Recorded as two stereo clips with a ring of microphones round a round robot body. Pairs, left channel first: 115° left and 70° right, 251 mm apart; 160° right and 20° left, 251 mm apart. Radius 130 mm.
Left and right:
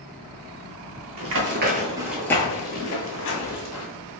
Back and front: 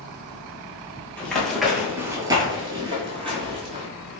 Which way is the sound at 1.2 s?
75° right.